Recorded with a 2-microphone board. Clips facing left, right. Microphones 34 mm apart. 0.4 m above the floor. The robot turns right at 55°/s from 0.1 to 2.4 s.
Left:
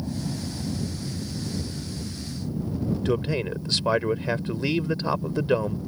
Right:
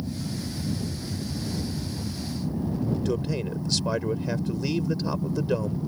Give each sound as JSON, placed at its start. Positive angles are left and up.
{"t": 0.0, "sound": "an aircraft", "side_deg": 35}
{"t": 3.0, "sound": "a man speaking", "side_deg": 40}